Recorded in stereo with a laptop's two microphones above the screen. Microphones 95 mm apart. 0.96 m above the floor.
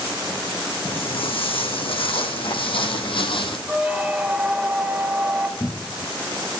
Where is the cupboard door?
25° left (ahead or behind), 0.7 m.